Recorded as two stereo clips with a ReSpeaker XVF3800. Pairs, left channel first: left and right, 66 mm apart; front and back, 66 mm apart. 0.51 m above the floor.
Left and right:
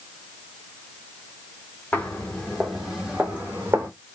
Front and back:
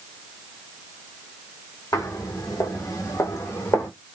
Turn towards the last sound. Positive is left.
turn(degrees=-40)